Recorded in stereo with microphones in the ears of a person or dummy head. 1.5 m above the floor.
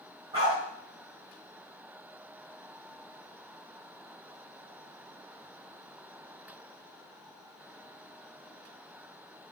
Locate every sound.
0.3 s a dog barking: 20° right (ahead or behind), 2.5 m